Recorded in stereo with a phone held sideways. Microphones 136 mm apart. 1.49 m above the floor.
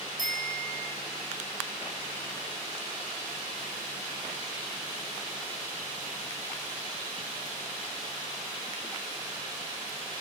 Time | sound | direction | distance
0.2 | a bicycle bell | 75° right (ahead or behind) | 9 m